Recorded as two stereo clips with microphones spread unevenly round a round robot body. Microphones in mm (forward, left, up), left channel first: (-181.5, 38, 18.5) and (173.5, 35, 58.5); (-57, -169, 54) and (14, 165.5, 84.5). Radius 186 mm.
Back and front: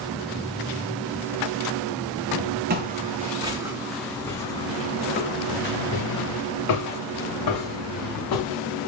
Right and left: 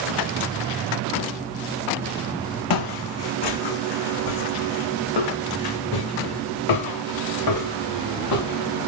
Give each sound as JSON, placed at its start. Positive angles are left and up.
{"t": 2.7, "sound": "footsteps", "azimuth_deg": -65, "distance_m": 1.7}